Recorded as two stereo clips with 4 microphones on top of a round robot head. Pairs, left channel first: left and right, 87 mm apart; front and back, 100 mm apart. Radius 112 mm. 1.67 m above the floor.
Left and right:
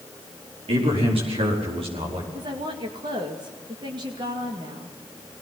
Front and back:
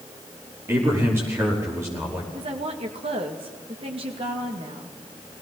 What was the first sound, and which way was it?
A man speaking, 110° right.